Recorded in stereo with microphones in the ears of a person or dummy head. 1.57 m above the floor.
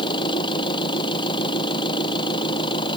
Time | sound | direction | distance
0.0 | an engine running | 30° left (ahead or behind) | ?